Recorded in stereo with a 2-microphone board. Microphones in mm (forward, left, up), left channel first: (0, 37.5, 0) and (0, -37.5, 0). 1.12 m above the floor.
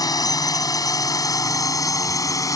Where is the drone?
55° left (ahead or behind); by 2.6 s 50° left (ahead or behind).